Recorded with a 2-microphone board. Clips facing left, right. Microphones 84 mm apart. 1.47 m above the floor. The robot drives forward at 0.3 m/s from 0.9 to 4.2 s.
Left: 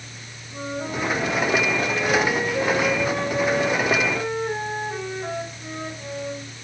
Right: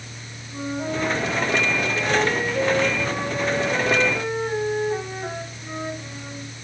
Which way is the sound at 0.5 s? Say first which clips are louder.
Right 2 dB; 15° right (ahead or behind).